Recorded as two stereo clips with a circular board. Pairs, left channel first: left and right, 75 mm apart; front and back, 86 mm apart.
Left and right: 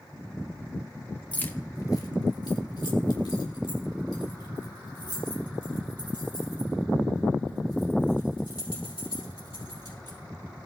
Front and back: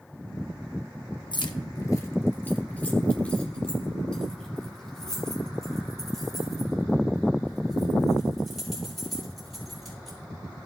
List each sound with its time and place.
1.3 s keys jangling: 15° left, 0.8 m; by 10.2 s 90° left, 9.5 m